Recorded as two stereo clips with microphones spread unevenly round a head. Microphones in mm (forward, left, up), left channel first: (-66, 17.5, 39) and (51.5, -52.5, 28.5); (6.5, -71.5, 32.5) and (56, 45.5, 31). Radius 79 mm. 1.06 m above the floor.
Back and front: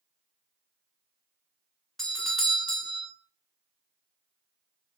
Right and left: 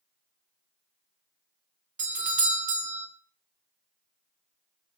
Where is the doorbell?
60° left, 1.6 m.